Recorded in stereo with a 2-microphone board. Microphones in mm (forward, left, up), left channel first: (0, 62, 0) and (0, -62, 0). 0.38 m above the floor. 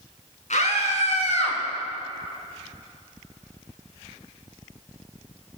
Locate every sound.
0.5 s a scream: 70° left (ahead or behind), 4 m; by 1.6 s 60° left (ahead or behind), 2.5 m